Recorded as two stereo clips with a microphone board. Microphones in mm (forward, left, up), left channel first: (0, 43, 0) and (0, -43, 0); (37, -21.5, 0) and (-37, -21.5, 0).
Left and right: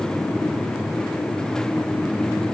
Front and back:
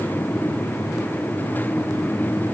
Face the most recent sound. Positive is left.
No sound to turn to.